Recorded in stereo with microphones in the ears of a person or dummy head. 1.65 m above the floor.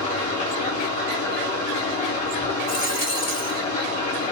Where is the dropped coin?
40° left (ahead or behind), 1.5 m.